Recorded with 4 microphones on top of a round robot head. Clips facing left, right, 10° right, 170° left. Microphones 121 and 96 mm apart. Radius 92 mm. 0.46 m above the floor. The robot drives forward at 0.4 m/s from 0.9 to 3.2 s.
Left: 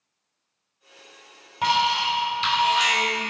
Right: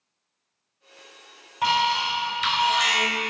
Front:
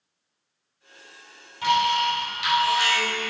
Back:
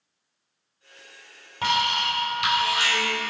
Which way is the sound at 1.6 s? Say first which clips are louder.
Left 1 dB, front 3 dB; 150° left.